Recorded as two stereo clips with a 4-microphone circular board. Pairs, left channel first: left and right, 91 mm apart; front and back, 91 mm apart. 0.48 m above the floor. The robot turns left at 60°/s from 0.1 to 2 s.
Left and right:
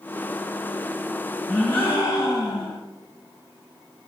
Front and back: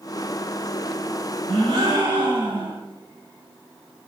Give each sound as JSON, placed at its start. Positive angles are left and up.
{"t": 1.5, "sound": "a gasp", "azimuth_deg": 170, "distance_m": 1.7}